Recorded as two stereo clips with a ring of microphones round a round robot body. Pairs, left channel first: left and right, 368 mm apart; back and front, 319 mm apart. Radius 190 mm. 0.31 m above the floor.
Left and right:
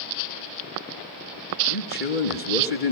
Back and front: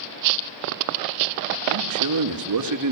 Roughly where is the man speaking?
Ahead left.